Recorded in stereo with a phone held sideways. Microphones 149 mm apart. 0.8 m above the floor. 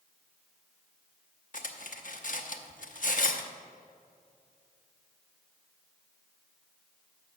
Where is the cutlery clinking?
65° left (ahead or behind), 0.8 m.